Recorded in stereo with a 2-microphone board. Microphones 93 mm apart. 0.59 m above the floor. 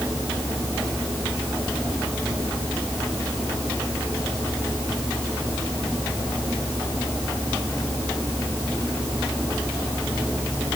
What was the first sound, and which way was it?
Only background noise.